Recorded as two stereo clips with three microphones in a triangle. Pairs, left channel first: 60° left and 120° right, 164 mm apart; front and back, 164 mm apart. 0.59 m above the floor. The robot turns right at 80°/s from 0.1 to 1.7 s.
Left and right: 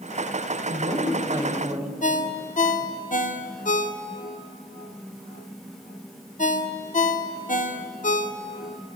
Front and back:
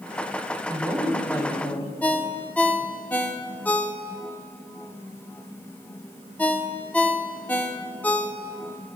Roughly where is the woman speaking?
Behind right.